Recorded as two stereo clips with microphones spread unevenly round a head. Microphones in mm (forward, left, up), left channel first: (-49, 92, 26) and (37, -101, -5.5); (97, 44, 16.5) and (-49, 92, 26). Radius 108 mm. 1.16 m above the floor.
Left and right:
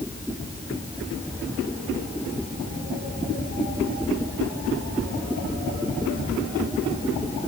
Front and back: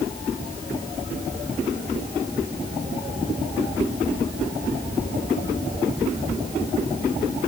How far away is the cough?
No cough in this recording.